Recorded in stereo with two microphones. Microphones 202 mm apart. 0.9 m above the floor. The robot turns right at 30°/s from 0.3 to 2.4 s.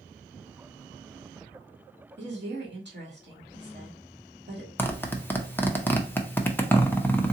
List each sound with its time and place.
2.2 s a woman speaking: 65° right (ahead or behind), 1.8 m; by 4.7 s 60° right (ahead or behind), 1.8 m
4.8 s a zipper: 10° left (ahead or behind), 0.6 m